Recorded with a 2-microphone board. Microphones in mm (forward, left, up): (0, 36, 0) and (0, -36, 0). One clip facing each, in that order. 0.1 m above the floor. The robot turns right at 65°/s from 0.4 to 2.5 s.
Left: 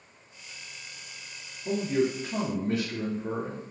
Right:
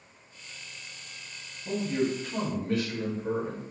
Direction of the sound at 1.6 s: 25° left (ahead or behind).